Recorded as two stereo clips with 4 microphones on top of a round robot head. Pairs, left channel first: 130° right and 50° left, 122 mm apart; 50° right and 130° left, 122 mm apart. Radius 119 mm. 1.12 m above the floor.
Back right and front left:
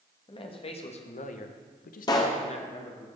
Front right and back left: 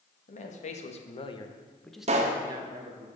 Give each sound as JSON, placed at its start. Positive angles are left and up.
{"t": 0.3, "sound": "a man speaking", "azimuth_deg": -80, "distance_m": 1.3}
{"t": 2.1, "sound": "a pop", "azimuth_deg": 170, "distance_m": 0.6}